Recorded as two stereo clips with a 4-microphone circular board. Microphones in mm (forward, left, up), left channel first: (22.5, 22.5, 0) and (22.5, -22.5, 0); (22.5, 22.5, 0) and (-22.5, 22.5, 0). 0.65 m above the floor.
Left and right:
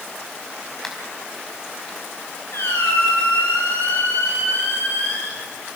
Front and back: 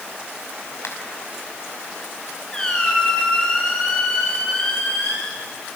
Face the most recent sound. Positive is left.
turn(degrees=75)